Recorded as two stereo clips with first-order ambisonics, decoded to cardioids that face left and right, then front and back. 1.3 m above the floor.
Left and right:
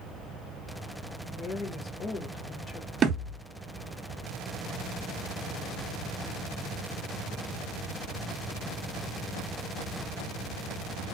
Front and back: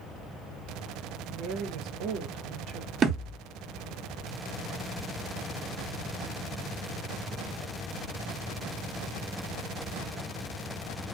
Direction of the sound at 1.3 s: 155° left.